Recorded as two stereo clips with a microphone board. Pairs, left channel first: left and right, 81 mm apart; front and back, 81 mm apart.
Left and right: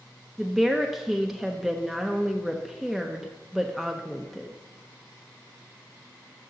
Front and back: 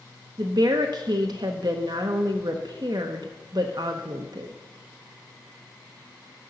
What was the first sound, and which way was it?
A woman speaking, straight behind.